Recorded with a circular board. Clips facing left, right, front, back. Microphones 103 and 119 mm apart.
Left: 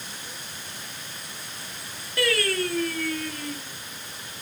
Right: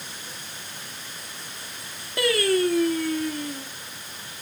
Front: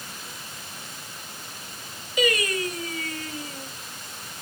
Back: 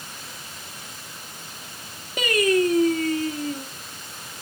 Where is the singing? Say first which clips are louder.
Right 4 dB, back 5 dB; 155° right, 1.6 m.